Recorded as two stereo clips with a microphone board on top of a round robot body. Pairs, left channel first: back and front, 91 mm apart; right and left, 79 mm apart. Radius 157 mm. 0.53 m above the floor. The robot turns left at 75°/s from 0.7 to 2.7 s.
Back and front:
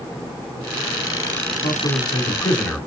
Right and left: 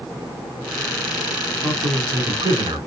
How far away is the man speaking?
About 1.7 m.